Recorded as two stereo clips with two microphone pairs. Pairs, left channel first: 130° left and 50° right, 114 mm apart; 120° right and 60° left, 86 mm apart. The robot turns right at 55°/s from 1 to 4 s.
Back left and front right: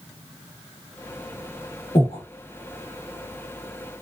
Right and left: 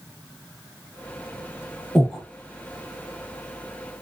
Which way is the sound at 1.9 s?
145° left.